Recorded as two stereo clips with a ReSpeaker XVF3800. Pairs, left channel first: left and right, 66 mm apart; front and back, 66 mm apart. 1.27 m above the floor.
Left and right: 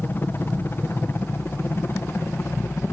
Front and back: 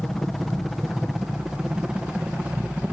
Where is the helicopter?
80° left; by 2.9 s 115° left.